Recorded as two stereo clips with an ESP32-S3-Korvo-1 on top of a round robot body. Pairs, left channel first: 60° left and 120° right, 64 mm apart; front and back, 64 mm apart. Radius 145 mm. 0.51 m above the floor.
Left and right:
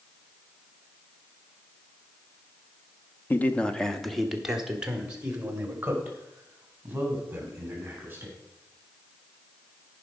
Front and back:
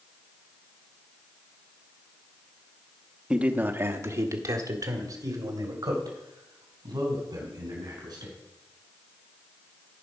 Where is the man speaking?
110° left, 1.0 m; by 8.3 s 175° left, 5 m.